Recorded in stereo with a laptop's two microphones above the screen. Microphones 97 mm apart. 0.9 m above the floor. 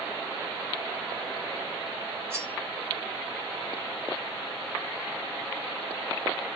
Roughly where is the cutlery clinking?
Right.